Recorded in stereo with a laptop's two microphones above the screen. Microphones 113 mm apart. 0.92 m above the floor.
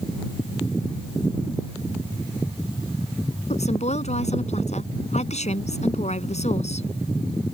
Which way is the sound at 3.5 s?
80° left.